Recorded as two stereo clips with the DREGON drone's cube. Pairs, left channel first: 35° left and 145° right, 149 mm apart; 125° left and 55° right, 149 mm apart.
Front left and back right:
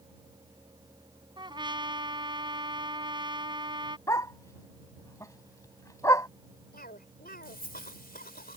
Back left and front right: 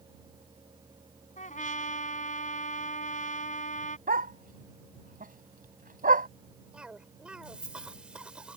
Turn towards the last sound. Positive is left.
turn(degrees=30)